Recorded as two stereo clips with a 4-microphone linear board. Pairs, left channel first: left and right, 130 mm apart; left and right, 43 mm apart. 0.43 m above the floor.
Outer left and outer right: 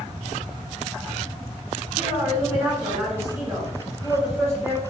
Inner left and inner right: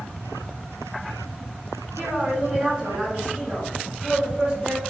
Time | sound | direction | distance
2.0 | a woman speaking | 20° right (ahead or behind) | 1.9 m